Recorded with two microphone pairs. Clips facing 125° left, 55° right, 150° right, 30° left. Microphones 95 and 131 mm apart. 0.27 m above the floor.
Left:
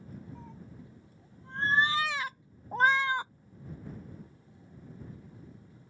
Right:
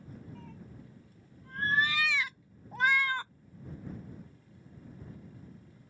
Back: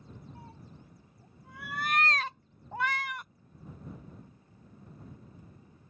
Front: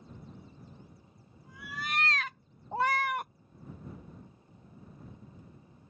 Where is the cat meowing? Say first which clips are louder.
Left 1 dB, back 1 dB; 165° right; by 3.3 s 50° left.